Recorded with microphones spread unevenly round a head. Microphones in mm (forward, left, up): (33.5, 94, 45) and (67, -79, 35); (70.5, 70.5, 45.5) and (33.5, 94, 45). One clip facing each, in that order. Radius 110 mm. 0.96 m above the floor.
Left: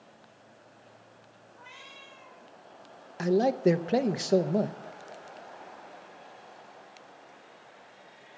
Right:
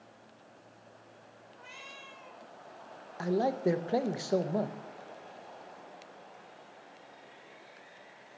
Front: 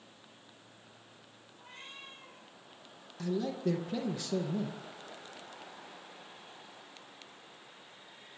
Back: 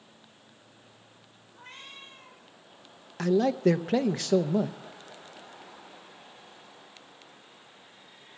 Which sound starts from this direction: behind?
A man speaking, at 3.2 s.